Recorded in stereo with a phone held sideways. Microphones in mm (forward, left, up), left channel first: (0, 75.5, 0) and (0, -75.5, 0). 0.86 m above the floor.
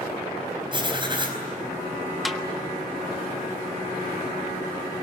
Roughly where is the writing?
Right.